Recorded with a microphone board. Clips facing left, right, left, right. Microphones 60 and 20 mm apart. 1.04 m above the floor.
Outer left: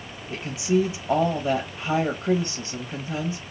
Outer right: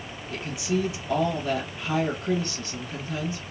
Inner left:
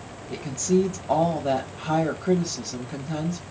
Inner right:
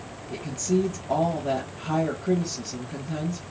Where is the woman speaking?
35° left (ahead or behind), 0.7 m.